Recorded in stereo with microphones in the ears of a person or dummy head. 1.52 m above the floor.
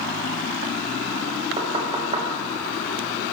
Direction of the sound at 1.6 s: 30° right (ahead or behind).